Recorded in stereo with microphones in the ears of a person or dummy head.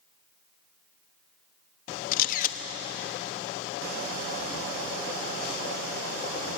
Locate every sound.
2.1 s a camera shutter: 55° left (ahead or behind), 1.1 m